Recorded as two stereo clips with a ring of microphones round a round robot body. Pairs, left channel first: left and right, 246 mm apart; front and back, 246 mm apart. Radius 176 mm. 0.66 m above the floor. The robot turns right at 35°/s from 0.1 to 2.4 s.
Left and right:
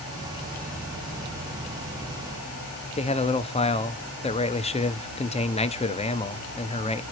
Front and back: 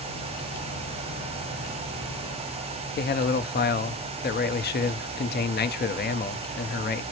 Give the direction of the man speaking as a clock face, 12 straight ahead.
11 o'clock.